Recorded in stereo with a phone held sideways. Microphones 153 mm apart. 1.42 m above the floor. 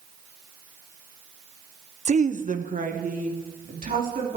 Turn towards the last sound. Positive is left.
turn(degrees=-60)  # may be behind; listen again after turning